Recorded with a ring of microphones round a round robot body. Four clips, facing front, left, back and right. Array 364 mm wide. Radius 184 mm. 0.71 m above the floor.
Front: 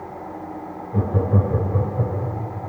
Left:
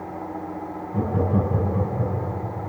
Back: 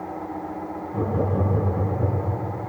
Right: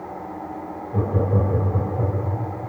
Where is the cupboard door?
I don't hear a cupboard door.